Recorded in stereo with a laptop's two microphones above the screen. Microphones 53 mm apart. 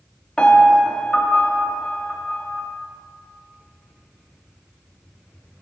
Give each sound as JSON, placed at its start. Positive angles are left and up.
{"t": 0.4, "sound": "a piano", "side_deg": 20, "distance_m": 1.4}